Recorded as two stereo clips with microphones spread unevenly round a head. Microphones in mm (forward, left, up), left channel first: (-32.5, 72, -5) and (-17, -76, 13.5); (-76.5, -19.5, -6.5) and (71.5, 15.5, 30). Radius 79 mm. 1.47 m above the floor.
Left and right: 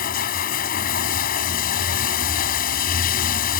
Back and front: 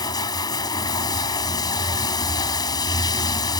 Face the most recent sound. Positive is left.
turn(degrees=125)